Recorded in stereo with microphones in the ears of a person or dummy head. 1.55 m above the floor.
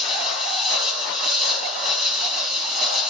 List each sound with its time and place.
0.0 s an insect: centre (ahead or behind), 7 m